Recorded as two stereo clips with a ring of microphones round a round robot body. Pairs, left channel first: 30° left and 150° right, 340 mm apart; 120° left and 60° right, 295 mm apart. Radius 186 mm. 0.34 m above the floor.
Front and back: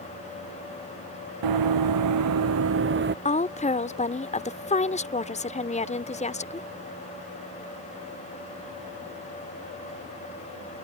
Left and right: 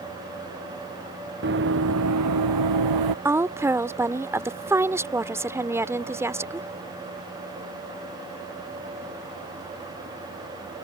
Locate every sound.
1.4 s running footsteps: 120° right; by 3.1 s 90° right
3.2 s a woman speaking: 5° left